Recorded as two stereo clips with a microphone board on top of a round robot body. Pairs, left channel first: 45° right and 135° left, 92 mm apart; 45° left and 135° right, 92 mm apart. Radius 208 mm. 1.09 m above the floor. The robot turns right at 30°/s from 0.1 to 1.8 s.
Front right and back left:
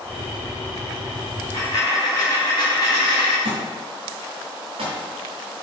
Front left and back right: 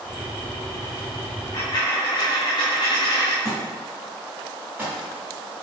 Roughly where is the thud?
Behind left.